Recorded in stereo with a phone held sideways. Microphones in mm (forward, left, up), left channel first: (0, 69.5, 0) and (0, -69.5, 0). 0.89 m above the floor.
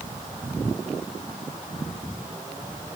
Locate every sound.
Only background noise.